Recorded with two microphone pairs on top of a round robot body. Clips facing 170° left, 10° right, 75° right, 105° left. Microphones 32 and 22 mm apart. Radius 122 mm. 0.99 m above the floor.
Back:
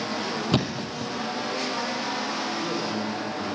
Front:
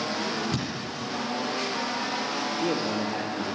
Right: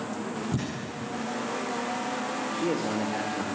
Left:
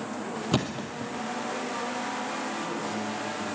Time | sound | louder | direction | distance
0.5 | a thud | back 5 dB, left 3 dB | 135° left | 2 m
2.5 | a man speaking | front 1 dB, right 4 dB | 55° right | 2.5 m